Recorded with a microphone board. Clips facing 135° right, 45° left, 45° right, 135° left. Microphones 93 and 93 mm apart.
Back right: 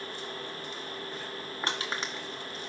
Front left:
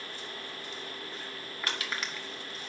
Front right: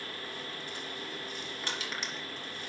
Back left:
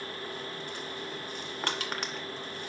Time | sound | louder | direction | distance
1.6 | crushing | back right 2 dB, back left 5 dB | 165° left | 2 m